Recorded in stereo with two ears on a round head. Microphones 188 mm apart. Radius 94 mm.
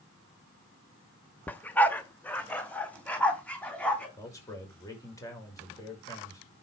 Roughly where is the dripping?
I don't hear dripping.